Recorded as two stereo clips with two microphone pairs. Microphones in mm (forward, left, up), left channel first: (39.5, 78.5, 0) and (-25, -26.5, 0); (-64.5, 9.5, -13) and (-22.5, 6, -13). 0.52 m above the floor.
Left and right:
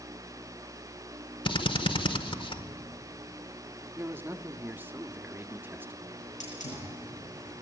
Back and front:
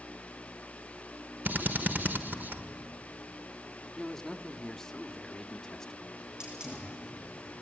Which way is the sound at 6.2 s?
70° left.